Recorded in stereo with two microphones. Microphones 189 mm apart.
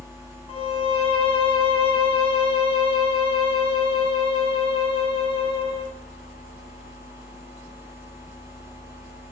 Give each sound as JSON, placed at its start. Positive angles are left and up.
{"t": 0.5, "sound": "a violin", "side_deg": 30, "distance_m": 1.1}